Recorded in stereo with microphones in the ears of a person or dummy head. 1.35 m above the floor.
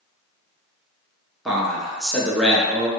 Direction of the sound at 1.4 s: Centre (ahead or behind).